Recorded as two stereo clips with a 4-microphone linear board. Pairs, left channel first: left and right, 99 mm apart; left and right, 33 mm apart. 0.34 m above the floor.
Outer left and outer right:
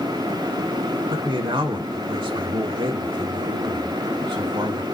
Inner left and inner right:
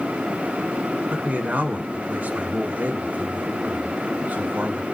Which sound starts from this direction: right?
A man speaking, at 1.1 s.